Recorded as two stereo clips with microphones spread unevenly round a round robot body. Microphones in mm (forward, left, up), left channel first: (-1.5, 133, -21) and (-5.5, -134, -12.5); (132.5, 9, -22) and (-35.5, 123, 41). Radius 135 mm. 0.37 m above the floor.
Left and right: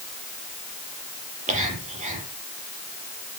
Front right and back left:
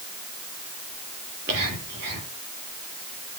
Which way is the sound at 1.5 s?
155° right.